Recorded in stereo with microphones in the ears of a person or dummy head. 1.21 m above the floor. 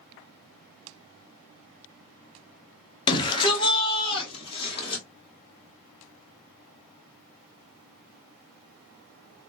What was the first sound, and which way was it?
A shout, 25° left (ahead or behind).